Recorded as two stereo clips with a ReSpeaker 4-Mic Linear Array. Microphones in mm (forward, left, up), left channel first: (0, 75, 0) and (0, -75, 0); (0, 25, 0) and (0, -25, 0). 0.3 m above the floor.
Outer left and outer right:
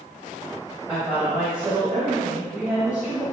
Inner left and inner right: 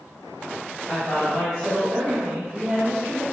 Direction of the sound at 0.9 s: 10° right (ahead or behind).